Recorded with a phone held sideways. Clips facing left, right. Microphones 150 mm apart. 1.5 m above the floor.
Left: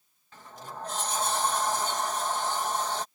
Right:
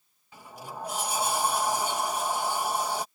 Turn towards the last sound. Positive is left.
turn(degrees=-10)  # may be behind; listen again after turning